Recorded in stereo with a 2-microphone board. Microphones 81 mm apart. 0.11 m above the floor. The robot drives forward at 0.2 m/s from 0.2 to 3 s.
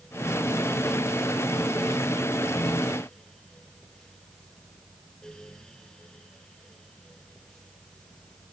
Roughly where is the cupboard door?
I don't hear a cupboard door.